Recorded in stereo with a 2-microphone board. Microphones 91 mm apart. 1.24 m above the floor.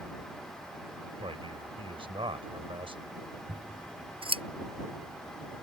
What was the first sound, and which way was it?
A man speaking, 70° right (ahead or behind).